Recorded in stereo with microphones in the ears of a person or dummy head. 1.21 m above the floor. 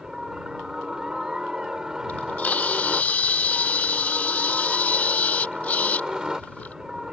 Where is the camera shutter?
10° left (ahead or behind).